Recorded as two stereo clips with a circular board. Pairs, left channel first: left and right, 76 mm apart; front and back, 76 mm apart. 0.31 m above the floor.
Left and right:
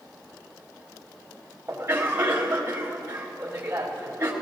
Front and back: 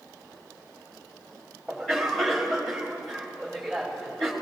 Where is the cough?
80° right, 1.6 m.